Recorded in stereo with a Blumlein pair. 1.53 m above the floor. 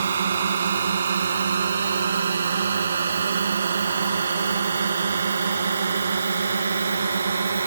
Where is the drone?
70° right; by 7.7 s 75° right.